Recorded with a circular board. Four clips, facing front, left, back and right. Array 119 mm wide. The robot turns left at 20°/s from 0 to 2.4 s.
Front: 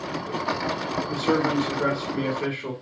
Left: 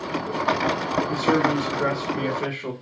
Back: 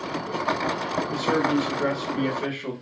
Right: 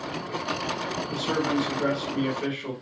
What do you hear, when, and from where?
1.1 s a man speaking: 95° left, 1.1 m; by 2.7 s 65° left, 1.1 m